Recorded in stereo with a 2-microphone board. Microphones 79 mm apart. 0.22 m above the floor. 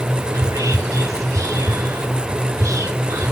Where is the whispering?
45° right (ahead or behind), 3 m.